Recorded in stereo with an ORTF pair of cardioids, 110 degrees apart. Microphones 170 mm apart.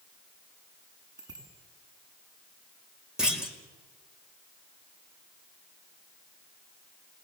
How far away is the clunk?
About 4.5 m.